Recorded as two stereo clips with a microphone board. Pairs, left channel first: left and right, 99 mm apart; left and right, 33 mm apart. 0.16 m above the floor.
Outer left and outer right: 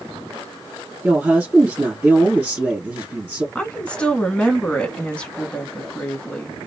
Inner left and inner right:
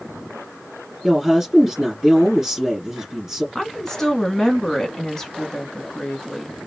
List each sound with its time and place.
1.0 s a woman speaking: 15° right (ahead or behind), 2.5 m
3.5 s a woman speaking: 10° left (ahead or behind), 1.1 m